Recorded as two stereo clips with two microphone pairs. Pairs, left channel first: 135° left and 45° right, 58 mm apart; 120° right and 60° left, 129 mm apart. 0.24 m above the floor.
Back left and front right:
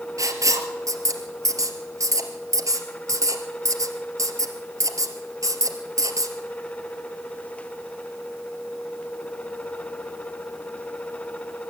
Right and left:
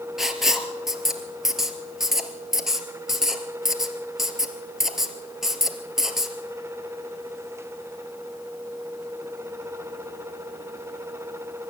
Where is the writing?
30° right, 2 m.